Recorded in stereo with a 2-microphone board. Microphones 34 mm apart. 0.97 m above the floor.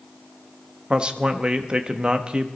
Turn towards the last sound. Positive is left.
turn(degrees=-30)  # may be behind; listen again after turning